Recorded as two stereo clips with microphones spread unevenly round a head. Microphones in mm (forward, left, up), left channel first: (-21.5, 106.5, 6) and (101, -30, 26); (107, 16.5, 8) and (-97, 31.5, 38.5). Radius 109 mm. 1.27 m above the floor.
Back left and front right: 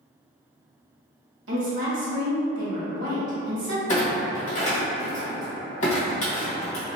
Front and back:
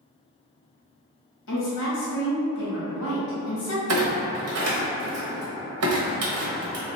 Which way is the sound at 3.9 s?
165° right.